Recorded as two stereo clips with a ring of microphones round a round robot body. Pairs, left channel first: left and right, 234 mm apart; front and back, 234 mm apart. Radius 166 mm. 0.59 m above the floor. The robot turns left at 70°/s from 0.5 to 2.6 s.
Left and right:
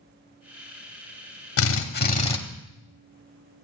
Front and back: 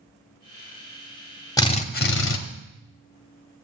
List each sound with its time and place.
1.6 s a drill: 75° left, 1.3 m; by 2.4 s 20° left, 1.3 m